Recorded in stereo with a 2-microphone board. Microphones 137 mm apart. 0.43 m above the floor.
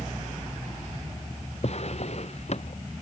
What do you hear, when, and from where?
1.6 s a drawer: 50° left (ahead or behind)